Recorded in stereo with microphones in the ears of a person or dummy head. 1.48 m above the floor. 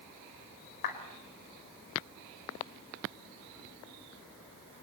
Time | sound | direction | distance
0.8 | a clap | 55° left (ahead or behind) | 4.5 m